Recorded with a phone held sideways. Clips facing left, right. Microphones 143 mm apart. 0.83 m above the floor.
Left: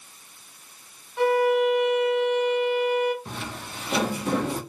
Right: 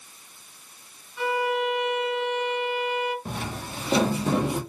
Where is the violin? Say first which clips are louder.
Left 6 dB; 60° left (ahead or behind), 0.7 m.